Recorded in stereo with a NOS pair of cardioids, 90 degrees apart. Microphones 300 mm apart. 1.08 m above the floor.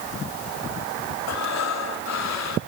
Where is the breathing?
65° left, 3.5 m.